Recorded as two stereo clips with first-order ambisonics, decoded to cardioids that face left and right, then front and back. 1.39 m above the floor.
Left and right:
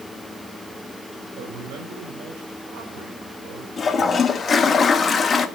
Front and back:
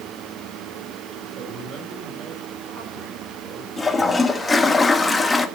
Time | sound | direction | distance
1.4 | a man speaking | 120° right | 5 m
3.8 | a toilet flushing | 60° left | 0.8 m